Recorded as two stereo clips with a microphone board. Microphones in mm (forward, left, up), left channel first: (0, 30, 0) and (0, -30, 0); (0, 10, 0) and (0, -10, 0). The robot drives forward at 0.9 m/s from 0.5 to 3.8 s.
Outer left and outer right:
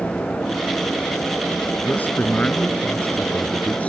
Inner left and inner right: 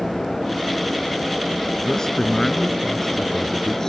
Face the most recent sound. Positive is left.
turn(degrees=25)  # may be behind; listen again after turning